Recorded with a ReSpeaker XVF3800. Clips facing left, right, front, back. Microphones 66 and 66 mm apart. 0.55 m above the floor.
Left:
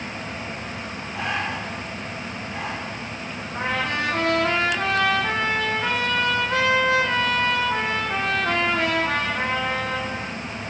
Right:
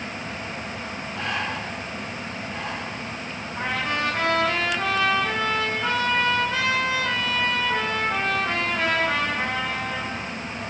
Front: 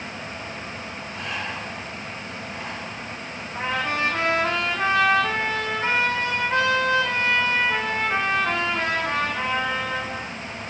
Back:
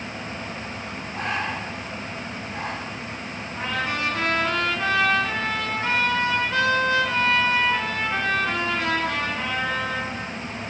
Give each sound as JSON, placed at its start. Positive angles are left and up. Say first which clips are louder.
{"t": 1.1, "sound": "breathing", "louder": "left 2 dB, back 5 dB", "azimuth_deg": 150, "distance_m": 1.4}
{"t": 3.5, "sound": "a trumpet", "louder": "left 1 dB, front 2 dB", "azimuth_deg": 55, "distance_m": 4.5}